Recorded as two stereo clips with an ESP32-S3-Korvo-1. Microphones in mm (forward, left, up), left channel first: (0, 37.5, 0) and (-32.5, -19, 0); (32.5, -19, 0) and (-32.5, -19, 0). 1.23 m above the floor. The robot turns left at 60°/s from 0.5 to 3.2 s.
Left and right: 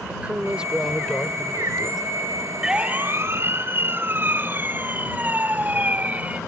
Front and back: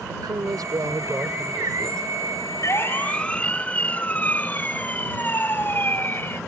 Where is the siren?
40° right; by 6.4 s 55° right.